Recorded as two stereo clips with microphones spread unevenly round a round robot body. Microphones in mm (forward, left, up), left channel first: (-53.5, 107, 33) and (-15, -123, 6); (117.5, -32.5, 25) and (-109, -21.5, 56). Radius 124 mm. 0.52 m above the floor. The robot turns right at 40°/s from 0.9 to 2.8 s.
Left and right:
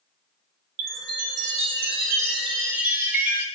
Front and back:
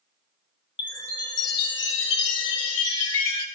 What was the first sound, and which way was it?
A chime, 70° right.